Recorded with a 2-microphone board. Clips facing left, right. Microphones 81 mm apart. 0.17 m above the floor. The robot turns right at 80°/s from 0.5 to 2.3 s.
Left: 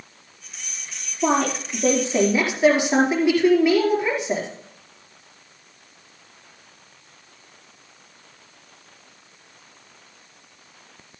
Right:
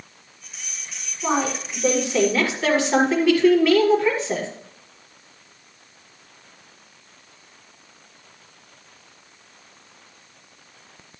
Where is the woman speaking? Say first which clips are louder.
Left 2 dB; 75° left, 4.5 m; by 4.5 s 160° left, 4.5 m.